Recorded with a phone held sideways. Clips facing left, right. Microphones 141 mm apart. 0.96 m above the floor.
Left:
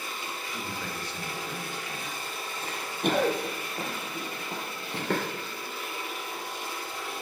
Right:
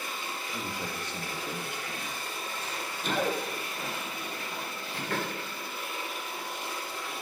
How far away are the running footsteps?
About 1.9 m.